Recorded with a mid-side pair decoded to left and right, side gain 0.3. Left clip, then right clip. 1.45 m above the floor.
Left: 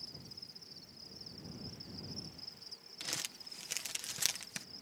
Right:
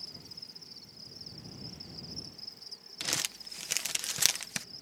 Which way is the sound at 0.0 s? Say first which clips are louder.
Right 4 dB; 40° right.